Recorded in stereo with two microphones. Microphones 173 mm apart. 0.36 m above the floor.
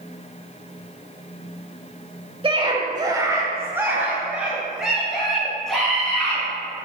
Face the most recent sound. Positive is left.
turn(degrees=5)  # may be behind; listen again after turning